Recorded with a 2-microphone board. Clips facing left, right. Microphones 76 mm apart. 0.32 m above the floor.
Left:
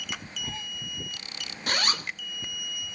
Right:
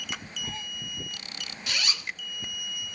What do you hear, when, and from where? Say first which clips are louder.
1.7 s a zipper: left 5 dB; 55° left (ahead or behind), 0.6 m